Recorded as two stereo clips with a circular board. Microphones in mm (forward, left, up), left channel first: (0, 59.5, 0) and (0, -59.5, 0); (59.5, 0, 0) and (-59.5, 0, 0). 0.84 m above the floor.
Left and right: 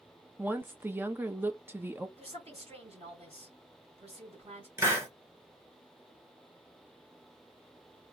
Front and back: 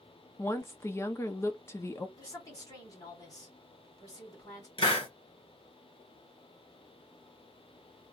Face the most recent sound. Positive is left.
turn(degrees=-25)